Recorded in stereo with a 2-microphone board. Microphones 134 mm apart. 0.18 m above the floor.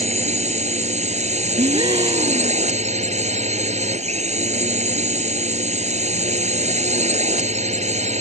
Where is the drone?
60° right (ahead or behind).